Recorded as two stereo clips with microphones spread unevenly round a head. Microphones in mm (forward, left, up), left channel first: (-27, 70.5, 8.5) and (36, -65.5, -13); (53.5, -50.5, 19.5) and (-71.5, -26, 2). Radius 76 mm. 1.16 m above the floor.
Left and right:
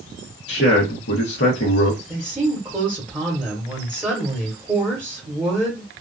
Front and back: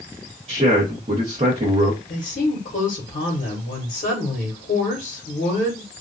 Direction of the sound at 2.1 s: 10° left.